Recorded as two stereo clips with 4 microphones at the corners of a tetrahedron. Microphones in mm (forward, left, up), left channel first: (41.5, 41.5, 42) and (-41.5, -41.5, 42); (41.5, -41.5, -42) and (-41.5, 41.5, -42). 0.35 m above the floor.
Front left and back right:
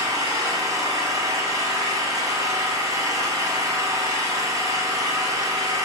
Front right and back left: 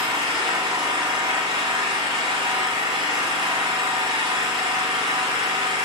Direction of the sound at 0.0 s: 170° left.